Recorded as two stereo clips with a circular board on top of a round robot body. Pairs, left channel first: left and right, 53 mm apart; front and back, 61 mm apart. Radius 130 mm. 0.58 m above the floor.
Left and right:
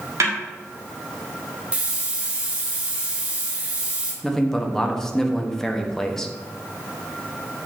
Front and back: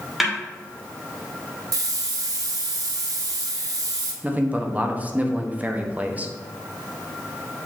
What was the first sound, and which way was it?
A snare drum, 95° right.